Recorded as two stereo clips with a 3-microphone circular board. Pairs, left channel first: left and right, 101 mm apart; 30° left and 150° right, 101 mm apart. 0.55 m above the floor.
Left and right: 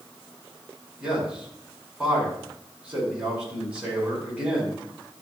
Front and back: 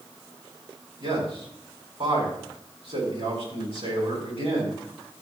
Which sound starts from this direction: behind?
A man speaking, at 1.0 s.